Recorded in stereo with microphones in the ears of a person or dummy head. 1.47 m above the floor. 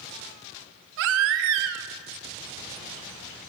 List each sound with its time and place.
1.0 s a baby crying: 65° right (ahead or behind), 0.9 m